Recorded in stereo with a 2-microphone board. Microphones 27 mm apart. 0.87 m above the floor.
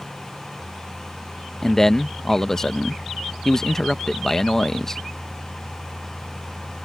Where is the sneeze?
I don't hear a sneeze.